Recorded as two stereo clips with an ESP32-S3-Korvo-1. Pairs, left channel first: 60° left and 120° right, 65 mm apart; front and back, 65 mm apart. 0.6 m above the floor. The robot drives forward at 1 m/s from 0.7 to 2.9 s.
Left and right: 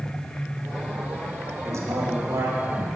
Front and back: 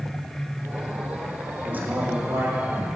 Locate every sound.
1.6 s a man speaking: 115° right, 1.1 m; by 2.6 s 150° right, 1.7 m